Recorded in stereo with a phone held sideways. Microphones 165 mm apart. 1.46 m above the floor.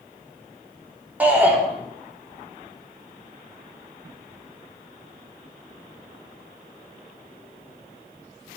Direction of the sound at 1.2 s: 10° right (ahead or behind).